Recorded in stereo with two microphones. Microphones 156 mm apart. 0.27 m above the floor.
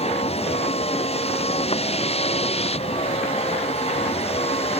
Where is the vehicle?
40° left (ahead or behind).